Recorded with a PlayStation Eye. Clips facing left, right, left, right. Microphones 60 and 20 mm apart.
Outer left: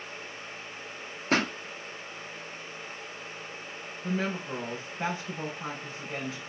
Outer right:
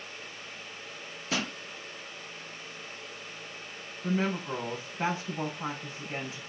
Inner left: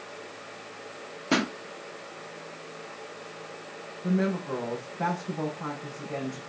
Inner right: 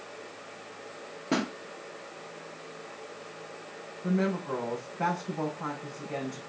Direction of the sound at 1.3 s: 50° left (ahead or behind).